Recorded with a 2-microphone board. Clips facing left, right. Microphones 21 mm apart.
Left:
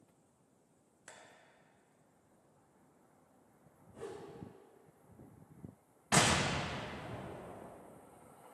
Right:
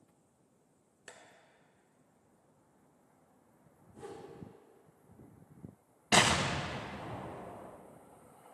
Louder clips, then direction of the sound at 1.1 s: Right 2 dB; 65° right (ahead or behind).